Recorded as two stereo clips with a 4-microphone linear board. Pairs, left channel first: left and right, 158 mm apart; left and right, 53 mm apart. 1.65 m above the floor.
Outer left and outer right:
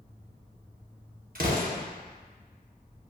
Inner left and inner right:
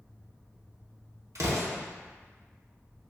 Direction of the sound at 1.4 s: 65° right (ahead or behind).